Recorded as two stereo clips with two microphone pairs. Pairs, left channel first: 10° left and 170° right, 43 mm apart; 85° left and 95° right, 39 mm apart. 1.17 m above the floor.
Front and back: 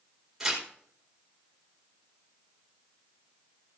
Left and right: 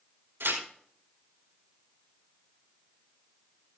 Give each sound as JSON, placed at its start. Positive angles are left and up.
{"t": 0.4, "sound": "tearing paper", "azimuth_deg": -90, "distance_m": 4.5}